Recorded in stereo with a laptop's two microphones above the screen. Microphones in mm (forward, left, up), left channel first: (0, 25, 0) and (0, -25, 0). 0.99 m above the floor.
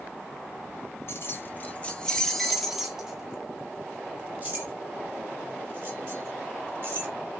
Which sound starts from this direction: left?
Keys jangling, at 1.1 s.